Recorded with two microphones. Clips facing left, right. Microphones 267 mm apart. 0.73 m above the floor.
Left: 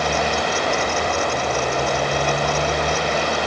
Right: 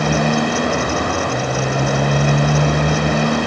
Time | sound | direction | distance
0.0 | a motorcycle | 55° right (ahead or behind) | ?